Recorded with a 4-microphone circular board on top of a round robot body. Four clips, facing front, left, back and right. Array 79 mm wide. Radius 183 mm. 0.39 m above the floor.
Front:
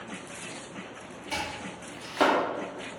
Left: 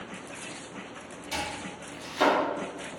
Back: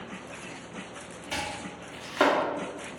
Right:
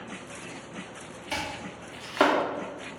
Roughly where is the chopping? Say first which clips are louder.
Right 1 dB, even; right.